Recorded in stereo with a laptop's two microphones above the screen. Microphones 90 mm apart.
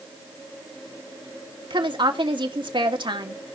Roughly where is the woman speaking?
Right.